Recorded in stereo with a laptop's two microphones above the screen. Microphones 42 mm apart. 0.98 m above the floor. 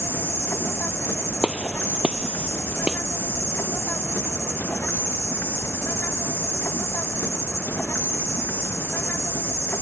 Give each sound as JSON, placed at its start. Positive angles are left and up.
{"t": 0.0, "sound": "an insect", "side_deg": 70}
{"t": 1.4, "sound": "a gunshot", "side_deg": -20}